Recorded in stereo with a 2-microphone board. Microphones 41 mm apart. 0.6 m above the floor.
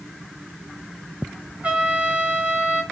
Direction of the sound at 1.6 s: 35° right (ahead or behind).